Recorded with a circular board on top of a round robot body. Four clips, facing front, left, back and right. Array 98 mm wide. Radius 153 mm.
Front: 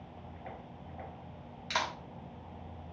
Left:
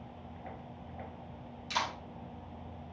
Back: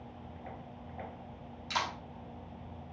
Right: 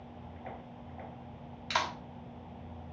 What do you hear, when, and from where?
1.7 s a clap: 60° right, 1.6 m